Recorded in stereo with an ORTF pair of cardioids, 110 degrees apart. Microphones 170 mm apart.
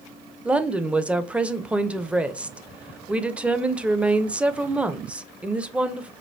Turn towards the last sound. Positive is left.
turn(degrees=-5)